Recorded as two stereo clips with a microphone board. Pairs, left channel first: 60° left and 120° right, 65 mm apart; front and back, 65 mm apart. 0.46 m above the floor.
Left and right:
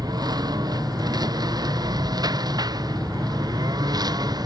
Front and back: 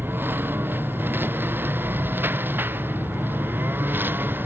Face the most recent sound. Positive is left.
turn(degrees=-120)